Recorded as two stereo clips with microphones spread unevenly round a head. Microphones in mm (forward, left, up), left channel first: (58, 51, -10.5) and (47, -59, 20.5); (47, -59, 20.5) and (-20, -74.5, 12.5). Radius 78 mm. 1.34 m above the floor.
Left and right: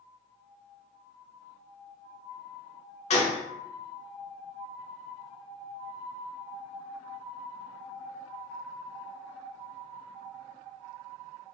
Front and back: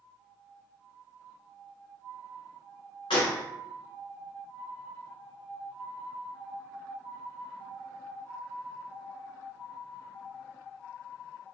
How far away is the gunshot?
About 0.9 m.